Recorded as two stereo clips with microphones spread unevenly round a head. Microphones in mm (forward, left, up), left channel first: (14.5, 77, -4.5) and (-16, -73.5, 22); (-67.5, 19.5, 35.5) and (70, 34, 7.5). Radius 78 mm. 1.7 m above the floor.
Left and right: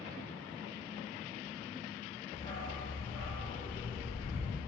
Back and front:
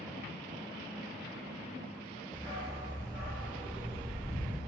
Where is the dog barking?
70° left, 1.2 m; by 4.6 s 35° right, 3 m.